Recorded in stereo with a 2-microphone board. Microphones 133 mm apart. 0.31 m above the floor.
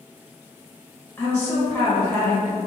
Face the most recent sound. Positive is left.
turn(degrees=20)  # may be behind; listen again after turning